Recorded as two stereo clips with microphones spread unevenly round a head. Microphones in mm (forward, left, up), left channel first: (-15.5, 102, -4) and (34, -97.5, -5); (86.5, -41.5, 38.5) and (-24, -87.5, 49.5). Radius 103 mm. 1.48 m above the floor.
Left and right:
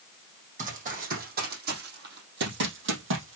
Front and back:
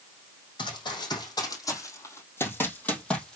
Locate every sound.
0.6 s running footsteps: 25° right, 3.5 m; by 3.4 s 65° right, 3 m